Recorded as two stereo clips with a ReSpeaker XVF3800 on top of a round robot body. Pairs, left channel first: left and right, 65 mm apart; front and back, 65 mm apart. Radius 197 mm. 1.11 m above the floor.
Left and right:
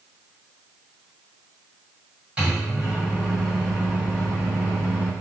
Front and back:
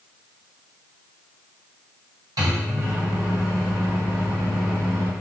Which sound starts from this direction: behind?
A microwave, at 2.4 s.